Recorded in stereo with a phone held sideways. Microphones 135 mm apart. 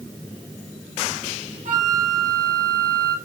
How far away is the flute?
About 6.5 m.